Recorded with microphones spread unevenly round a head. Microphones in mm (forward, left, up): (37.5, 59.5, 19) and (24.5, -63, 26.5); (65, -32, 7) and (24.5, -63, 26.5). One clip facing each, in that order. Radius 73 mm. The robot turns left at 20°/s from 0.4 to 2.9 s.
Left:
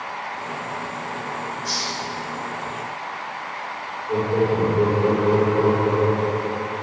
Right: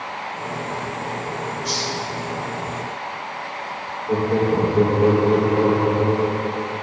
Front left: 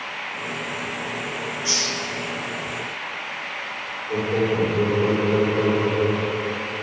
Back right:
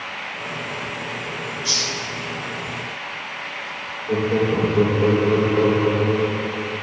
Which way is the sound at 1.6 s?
35° right.